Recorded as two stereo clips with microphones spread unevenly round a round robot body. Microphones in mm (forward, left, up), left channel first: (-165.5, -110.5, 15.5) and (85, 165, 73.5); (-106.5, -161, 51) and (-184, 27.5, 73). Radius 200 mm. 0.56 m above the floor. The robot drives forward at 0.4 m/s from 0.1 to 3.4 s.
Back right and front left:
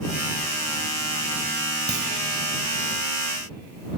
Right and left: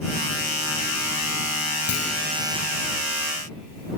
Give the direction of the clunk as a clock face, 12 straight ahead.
1 o'clock.